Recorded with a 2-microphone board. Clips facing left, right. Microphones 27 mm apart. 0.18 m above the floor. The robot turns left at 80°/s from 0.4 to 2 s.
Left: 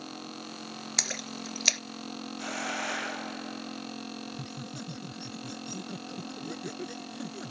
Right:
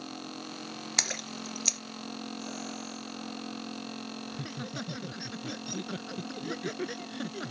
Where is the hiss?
85° left.